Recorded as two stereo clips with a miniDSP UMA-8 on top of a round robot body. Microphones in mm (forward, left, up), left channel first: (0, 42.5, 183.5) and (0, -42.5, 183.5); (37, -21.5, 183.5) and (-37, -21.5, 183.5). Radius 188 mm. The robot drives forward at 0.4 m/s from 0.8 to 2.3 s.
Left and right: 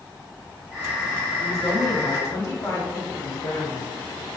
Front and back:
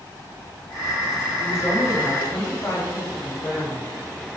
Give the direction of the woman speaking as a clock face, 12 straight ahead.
11 o'clock.